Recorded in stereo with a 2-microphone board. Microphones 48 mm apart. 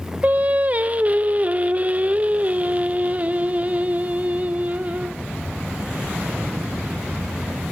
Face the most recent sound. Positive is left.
turn(degrees=-30)  # may be behind; listen again after turning